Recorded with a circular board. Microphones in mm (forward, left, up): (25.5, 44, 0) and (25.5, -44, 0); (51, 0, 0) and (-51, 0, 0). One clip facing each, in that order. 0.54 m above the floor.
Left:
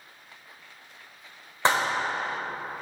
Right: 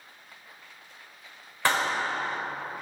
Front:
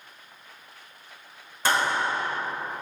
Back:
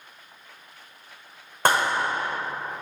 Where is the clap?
155° left, 2 m.